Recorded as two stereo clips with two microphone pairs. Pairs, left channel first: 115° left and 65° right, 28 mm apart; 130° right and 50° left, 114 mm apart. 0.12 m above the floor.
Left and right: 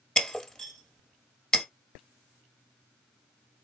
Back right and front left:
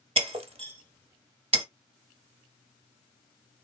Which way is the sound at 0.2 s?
50° left.